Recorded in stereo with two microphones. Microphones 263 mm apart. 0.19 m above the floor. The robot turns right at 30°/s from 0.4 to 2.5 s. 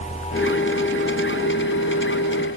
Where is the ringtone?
No ringtone in this recording.